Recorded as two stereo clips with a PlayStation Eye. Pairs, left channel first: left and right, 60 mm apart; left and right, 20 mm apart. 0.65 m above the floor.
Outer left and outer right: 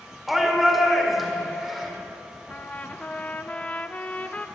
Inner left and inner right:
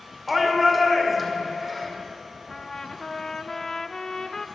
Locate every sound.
0.3 s a shout: 5° right (ahead or behind), 2.0 m
2.5 s a trumpet: 25° left (ahead or behind), 0.6 m